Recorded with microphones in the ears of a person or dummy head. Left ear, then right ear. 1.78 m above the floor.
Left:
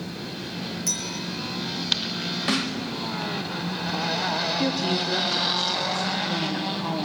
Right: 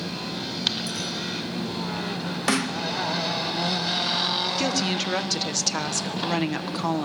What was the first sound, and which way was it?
A clink, 20° left (ahead or behind).